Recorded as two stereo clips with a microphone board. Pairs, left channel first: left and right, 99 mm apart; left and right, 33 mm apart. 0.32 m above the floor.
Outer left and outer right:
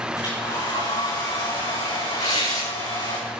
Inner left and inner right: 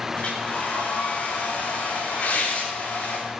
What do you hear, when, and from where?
0.1 s a hair dryer: 55° left (ahead or behind), 7.5 m
2.2 s tearing paper: 85° left, 6.5 m